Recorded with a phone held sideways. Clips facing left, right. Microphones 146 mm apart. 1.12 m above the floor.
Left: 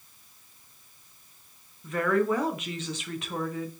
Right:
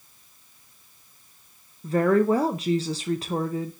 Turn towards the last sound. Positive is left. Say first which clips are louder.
# right 5 dB
turn(degrees=-35)  # may be behind; listen again after turning